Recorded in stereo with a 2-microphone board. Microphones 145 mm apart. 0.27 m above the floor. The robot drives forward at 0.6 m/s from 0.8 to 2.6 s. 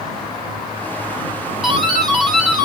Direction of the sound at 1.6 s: Centre (ahead or behind).